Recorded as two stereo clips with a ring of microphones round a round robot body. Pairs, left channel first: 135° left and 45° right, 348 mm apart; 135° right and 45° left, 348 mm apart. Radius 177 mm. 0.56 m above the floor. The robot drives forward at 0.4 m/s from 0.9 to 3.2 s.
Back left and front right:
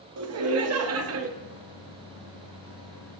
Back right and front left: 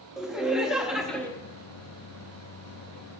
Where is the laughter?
45° right, 1.1 m; by 1.3 s 55° right, 1.0 m.